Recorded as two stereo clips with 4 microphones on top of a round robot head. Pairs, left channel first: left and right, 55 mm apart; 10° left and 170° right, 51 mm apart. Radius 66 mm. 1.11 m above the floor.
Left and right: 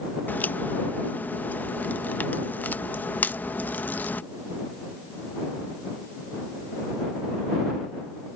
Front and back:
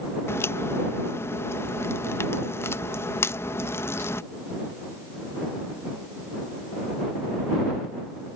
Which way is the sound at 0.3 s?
35° left.